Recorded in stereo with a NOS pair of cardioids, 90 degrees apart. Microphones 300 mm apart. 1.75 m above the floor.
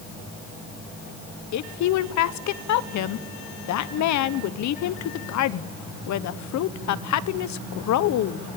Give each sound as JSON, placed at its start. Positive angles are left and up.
{"t": 1.5, "sound": "a woman speaking", "azimuth_deg": 70, "distance_m": 1.2}